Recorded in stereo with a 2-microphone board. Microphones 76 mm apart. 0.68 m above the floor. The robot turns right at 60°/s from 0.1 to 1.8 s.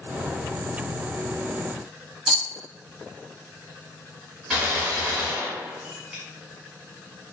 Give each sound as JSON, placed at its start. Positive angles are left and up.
{"t": 2.3, "sound": "a rattle", "side_deg": 0, "distance_m": 0.6}
{"t": 4.5, "sound": "a gunshot", "side_deg": -5, "distance_m": 1.5}